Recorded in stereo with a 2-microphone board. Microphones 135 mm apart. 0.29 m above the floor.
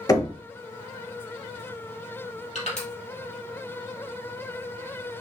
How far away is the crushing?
About 2.5 m.